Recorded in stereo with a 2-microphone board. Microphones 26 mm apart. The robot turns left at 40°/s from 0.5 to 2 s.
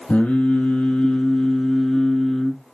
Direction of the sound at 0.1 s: 75° left.